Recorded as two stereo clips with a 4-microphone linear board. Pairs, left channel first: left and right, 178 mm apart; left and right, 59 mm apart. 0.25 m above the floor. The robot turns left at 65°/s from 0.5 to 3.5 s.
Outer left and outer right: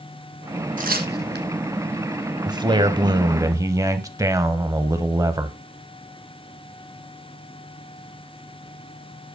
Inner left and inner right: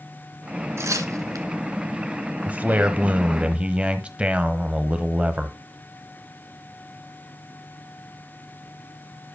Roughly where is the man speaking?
Right.